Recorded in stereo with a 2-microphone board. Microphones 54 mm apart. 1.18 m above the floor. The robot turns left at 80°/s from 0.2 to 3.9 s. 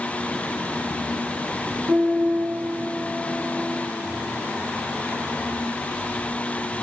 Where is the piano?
115° right, 8.5 m; by 3.2 s 140° left, 8.5 m.